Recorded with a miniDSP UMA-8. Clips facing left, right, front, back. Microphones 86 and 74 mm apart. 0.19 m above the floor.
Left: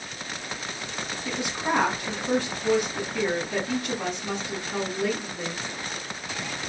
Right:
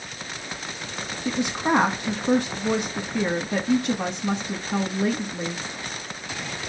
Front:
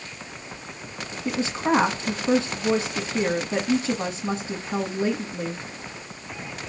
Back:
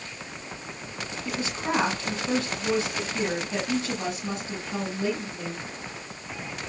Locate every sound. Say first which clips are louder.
1.2 s a woman speaking: right 5 dB, front 7 dB; 45° right, 1.9 m